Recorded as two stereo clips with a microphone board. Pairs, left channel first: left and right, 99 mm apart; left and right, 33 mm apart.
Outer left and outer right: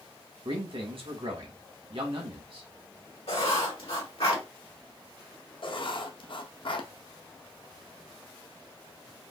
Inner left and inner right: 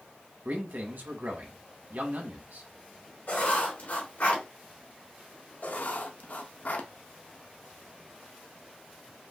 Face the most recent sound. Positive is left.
turn(degrees=55)  # may be behind; listen again after turning